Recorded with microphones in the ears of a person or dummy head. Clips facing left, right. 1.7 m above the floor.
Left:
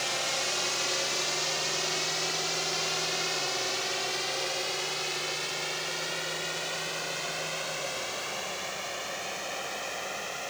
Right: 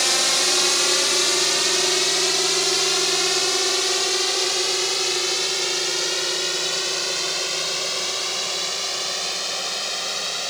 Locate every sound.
0.0 s a drone: 70° right (ahead or behind); by 10.5 s 55° right (ahead or behind)